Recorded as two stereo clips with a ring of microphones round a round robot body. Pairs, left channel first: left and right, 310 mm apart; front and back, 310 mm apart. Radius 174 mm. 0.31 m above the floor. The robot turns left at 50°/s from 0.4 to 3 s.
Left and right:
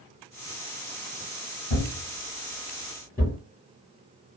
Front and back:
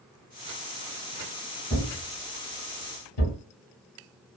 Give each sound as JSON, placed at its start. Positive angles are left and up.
{"t": 1.7, "sound": "a thud", "azimuth_deg": 70, "distance_m": 2.0}